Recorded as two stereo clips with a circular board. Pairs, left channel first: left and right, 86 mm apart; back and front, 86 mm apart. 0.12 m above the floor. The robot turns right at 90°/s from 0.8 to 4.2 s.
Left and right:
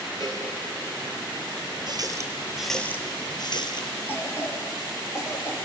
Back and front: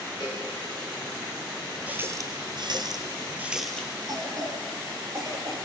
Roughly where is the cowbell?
Behind left.